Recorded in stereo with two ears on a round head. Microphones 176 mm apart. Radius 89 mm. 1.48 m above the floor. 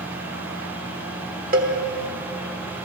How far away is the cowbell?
About 1.4 m.